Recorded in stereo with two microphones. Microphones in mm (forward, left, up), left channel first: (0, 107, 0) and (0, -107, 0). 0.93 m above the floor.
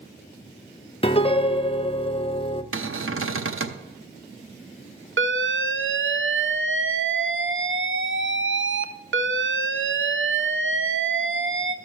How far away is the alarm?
About 0.5 m.